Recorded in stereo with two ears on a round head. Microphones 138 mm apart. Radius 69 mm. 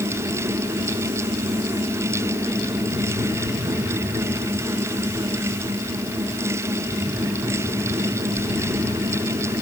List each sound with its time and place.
Only background noise.